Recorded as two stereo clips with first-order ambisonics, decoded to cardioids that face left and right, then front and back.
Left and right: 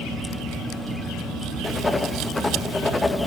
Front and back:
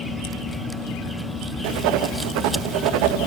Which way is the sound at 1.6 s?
170° left.